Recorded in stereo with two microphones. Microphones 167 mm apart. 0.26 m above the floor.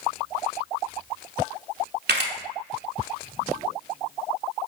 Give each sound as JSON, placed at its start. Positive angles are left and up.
{"t": 2.1, "sound": "a camera shutter", "side_deg": -85, "distance_m": 0.6}